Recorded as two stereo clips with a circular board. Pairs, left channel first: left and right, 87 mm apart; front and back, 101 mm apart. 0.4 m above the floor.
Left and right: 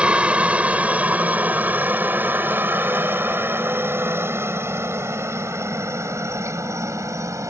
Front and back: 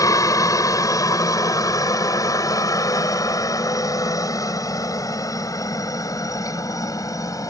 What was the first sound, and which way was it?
A helicopter, 20° right.